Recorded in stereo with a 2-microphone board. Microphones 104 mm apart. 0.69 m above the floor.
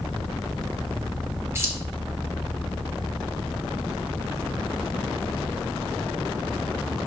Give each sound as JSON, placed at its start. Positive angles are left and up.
{"t": 1.6, "sound": "keys jangling", "side_deg": -25, "distance_m": 1.5}